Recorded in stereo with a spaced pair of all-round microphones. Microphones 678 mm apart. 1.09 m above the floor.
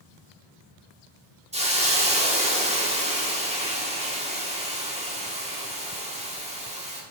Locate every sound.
1.5 s a hiss: 10° right (ahead or behind), 1.2 m